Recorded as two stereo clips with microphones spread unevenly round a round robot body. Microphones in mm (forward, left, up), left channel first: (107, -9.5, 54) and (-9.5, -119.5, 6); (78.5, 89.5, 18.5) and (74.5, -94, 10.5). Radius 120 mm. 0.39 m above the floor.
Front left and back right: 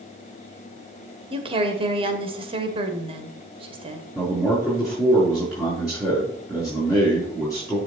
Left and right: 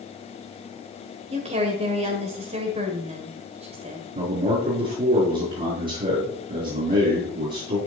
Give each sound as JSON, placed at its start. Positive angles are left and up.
{"t": 1.3, "sound": "a woman speaking", "azimuth_deg": -135, "distance_m": 1.5}
{"t": 4.2, "sound": "a man speaking", "azimuth_deg": -55, "distance_m": 5.0}